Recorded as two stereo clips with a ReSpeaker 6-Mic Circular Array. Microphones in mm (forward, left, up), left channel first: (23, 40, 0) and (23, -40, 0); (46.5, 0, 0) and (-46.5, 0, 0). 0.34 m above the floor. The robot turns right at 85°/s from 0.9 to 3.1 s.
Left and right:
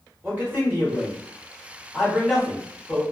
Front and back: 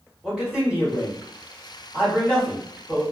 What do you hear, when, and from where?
0.2 s a man speaking: 110° right, 1.3 m; by 3.0 s 75° left, 1.3 m